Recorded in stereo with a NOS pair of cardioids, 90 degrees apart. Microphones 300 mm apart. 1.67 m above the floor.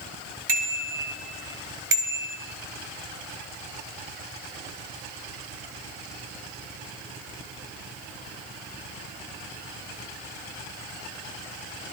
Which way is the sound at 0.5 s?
55° right.